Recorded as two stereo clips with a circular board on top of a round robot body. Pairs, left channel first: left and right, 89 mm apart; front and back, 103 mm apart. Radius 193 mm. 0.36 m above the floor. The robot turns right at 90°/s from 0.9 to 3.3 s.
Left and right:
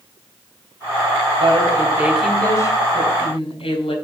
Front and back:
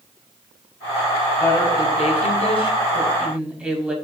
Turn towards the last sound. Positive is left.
turn(degrees=100)